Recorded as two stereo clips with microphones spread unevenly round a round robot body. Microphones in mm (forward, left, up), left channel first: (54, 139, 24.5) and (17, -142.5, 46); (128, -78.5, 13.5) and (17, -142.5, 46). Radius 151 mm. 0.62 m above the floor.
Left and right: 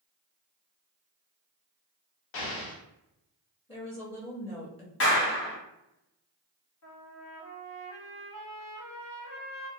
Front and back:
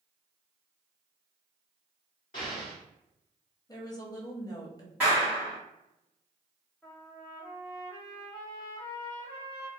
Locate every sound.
2.3 s an explosion: 90° left, 0.7 m
3.7 s a woman speaking: 30° left, 0.9 m
5.0 s a clap: 120° left, 1.0 m
6.8 s a trumpet: 120° left, 1.1 m